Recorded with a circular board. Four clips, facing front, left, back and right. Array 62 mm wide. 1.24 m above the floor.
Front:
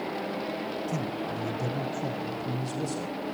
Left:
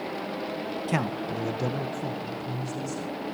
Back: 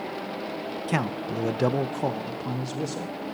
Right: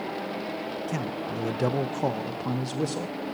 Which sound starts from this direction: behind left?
A man speaking, at 0.9 s.